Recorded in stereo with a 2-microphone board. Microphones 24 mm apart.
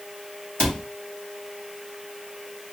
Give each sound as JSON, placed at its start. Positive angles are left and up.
{"t": 0.6, "sound": "a cupboard door", "side_deg": 40, "distance_m": 1.1}